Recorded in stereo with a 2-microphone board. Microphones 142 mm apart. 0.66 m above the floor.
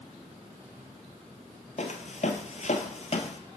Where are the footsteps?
55° left (ahead or behind), 1.1 m; by 3.4 s 45° left (ahead or behind), 1.1 m.